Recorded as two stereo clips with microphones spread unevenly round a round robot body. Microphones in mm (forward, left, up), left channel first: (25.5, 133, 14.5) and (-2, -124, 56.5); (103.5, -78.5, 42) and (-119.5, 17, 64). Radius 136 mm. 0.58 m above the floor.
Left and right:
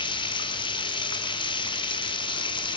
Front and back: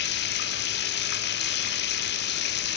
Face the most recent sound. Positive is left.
turn(degrees=15)